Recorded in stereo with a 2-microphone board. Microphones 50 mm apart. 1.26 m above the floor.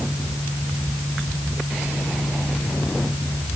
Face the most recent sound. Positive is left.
No sound to turn to.